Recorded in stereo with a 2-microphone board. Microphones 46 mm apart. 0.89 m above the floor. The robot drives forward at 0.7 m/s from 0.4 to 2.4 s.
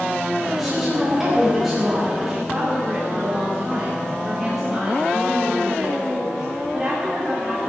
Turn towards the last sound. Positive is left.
turn(degrees=-10)  # may be behind; listen again after turning